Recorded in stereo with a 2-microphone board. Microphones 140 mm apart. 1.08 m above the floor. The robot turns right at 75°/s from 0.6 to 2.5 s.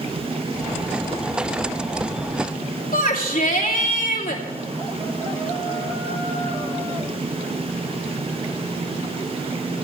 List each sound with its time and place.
2.9 s a shout: 80° left, 2.5 m